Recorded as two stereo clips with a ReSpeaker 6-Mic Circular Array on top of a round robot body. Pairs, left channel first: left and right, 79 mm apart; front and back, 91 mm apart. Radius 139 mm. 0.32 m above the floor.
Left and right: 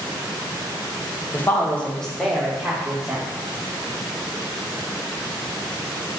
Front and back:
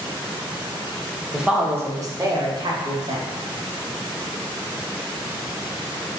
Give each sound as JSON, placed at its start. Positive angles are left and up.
{"t": 1.3, "sound": "a woman speaking", "azimuth_deg": 100, "distance_m": 1.0}